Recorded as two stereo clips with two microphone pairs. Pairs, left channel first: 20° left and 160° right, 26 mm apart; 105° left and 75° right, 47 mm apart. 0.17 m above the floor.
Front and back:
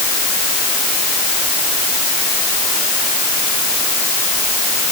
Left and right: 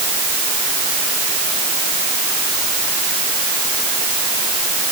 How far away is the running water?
I don't hear running water.